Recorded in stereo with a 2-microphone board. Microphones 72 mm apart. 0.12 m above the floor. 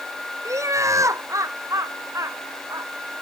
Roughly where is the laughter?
Right.